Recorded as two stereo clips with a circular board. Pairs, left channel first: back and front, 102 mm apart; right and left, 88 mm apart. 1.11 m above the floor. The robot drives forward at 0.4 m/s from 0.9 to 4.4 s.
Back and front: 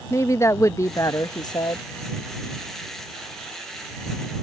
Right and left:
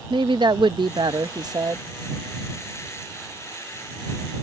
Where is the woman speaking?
120° left; by 1.8 s 135° left.